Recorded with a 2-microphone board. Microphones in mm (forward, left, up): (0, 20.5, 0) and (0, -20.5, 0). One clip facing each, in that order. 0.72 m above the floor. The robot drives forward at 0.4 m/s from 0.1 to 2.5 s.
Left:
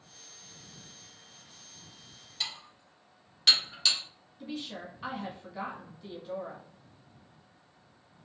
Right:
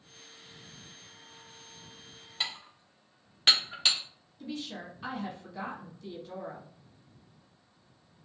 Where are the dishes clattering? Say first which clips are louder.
Right 2 dB; 30° right (ahead or behind), 0.5 m.